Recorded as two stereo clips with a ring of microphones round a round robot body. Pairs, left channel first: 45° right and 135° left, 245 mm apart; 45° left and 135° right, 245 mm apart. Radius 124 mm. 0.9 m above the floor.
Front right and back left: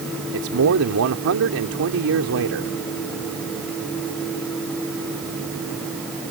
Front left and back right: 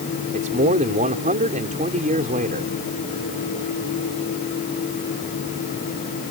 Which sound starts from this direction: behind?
A man speaking, at 0.3 s.